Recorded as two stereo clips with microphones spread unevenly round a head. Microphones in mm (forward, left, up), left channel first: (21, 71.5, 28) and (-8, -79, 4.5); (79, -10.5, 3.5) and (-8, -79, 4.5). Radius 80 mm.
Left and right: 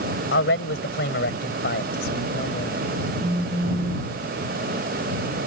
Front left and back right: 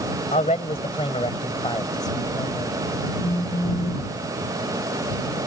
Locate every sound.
0.3 s a man speaking: 95° left; by 2.8 s 110° left
3.2 s a phone buzzing: 20° right